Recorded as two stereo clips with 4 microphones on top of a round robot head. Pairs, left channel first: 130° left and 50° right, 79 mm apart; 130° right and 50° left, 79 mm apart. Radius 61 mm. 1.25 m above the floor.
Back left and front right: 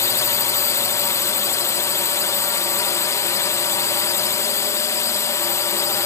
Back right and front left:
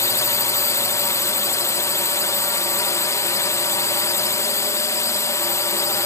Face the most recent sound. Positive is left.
turn(degrees=180)